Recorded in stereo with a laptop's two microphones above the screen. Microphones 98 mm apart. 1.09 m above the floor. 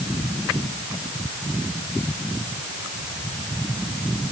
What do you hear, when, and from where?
Only background noise.